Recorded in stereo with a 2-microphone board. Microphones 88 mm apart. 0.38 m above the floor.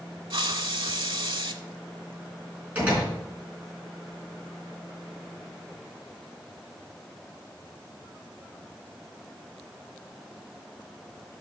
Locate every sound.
0.3 s a hiss: 75° right (ahead or behind), 0.7 m
2.8 s a door slam: 15° right (ahead or behind), 3.5 m